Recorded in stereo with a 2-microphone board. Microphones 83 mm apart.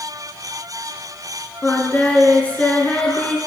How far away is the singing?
About 1.4 m.